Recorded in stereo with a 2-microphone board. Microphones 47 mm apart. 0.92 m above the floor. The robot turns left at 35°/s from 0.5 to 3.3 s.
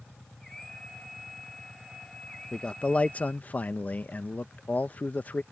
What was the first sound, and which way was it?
A man speaking, 15° left (ahead or behind).